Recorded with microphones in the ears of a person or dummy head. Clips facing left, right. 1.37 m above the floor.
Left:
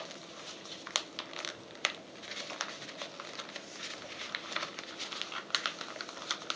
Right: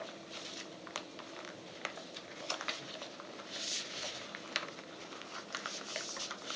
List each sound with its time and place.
2.7 s a snare drum: 40° right (ahead or behind), 0.7 m